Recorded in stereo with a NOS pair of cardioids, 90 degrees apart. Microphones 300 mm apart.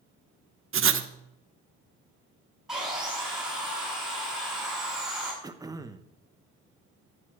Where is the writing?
45° right, 1.3 m.